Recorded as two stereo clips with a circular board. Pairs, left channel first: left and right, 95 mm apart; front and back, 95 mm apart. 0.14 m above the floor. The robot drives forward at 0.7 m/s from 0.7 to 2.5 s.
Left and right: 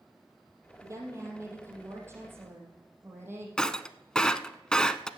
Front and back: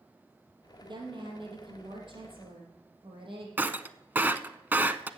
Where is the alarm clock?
No alarm clock in this recording.